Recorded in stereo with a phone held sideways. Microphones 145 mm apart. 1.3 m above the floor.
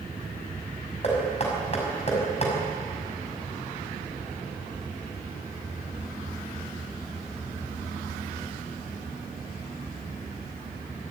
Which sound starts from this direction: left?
Knocking, at 1.0 s.